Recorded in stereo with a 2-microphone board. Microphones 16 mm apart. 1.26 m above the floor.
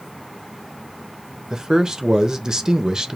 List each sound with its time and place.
1.5 s a man speaking: 45° right (ahead or behind), 1.0 m